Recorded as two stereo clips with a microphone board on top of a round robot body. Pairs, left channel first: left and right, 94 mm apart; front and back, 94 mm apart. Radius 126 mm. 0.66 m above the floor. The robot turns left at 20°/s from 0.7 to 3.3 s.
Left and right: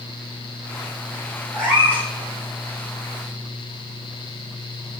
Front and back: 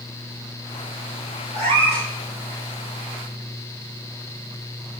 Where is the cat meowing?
175° left, 4.5 m; by 2.1 s 165° left, 4.5 m.